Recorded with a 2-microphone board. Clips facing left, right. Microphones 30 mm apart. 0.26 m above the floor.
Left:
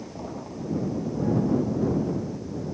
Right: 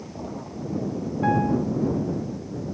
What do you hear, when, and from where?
1.2 s a piano: 75° right (ahead or behind)